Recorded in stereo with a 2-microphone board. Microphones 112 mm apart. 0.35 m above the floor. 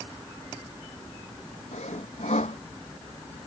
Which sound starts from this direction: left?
Sawing, at 1.7 s.